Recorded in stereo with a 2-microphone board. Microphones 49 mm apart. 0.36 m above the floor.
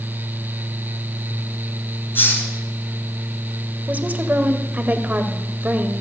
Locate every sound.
2.1 s a hiss: 45° left (ahead or behind), 2.5 m
3.9 s a woman speaking: 35° right (ahead or behind), 1.3 m